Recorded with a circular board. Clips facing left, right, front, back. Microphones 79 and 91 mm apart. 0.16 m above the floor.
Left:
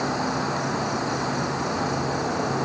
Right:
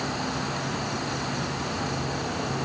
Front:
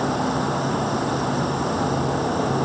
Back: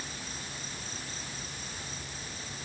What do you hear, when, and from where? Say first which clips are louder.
0.0 s an insect: left 5 dB, front 22 dB; 20° left